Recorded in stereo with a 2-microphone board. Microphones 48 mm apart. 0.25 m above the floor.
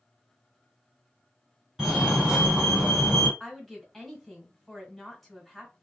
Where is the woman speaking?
Centre (ahead or behind), 1.4 m.